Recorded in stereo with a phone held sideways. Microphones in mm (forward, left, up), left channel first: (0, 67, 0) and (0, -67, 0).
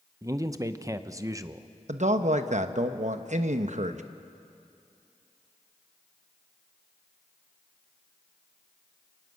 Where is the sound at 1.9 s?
60° right (ahead or behind), 1.1 m.